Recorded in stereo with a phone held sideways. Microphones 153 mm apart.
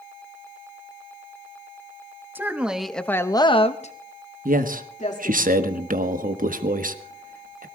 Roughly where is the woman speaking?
Centre.